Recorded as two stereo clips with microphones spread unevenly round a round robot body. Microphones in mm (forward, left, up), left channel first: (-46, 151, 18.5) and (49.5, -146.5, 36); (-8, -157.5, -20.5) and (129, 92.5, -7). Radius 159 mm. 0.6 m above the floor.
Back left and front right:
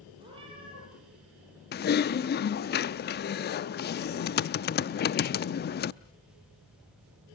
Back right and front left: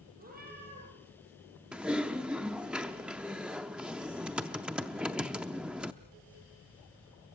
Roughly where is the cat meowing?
Ahead.